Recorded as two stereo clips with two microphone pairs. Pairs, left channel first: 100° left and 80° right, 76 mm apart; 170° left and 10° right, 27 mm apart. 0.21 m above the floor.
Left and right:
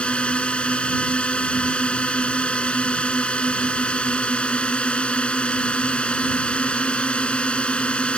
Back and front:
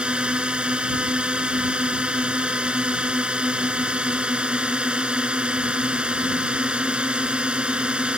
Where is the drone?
30° left.